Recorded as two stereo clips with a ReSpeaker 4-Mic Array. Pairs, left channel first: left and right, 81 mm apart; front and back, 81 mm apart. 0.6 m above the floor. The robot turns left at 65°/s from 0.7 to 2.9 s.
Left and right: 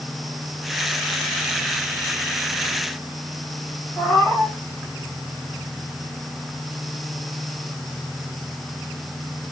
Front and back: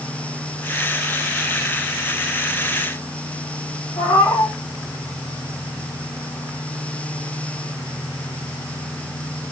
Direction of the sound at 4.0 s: 15° left.